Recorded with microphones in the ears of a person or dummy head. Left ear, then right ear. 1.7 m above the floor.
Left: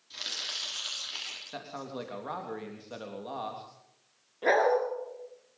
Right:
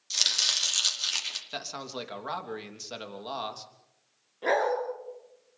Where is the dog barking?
Centre (ahead or behind), 6 m.